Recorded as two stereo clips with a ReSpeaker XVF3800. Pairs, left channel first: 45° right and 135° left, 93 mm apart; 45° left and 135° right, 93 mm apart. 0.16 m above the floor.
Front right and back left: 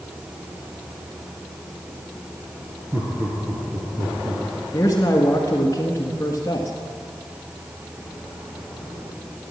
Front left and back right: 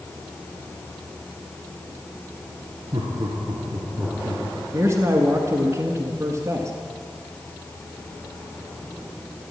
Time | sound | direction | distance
2.9 | laughter | 170° right | 2.5 m
4.7 | a man speaking | 85° right | 1.5 m